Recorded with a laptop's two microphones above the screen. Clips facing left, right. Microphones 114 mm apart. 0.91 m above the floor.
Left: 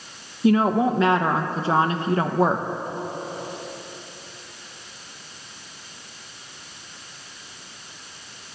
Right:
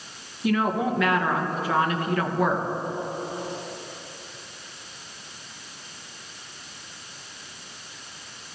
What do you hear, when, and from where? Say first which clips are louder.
0.4 s a woman speaking: left 5 dB; 30° left (ahead or behind), 0.6 m